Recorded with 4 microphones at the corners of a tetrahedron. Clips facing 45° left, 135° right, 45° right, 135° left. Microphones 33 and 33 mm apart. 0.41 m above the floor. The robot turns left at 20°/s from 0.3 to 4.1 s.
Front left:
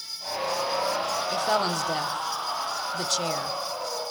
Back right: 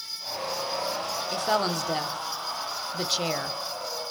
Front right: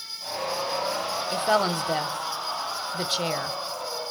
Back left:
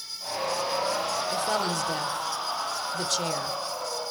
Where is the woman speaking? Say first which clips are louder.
Even, front right 7 dB; 40° right, 0.9 m; by 3.6 s 85° right, 0.9 m.